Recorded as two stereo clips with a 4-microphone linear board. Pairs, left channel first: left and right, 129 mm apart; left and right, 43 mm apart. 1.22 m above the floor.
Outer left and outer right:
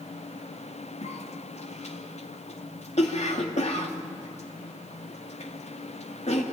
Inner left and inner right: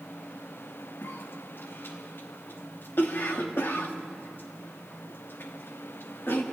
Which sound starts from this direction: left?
A cough, at 1.0 s.